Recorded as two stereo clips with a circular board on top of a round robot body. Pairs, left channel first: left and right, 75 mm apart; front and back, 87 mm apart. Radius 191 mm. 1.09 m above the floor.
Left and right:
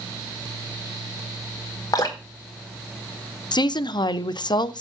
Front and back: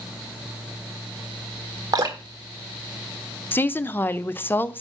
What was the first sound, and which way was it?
Dripping, 135° left.